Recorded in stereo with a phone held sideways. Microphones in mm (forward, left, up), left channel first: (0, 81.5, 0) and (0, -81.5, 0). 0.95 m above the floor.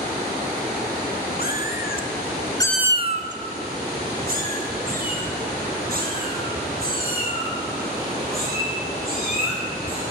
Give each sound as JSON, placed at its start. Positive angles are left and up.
{"t": 1.4, "sound": "a cat meowing", "side_deg": 65, "distance_m": 1.7}